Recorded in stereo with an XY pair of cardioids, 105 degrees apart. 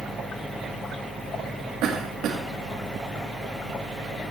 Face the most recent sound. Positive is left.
turn(degrees=-70)